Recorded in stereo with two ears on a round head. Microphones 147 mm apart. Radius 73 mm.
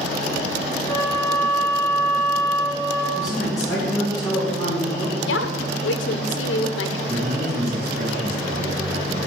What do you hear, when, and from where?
0.9 s a flute: 20° left (ahead or behind), 4.5 m
3.1 s a man speaking: 25° left (ahead or behind), 2.5 m
5.3 s a woman speaking: 85° left, 0.8 m
7.1 s a man speaking: 60° right (ahead or behind), 4 m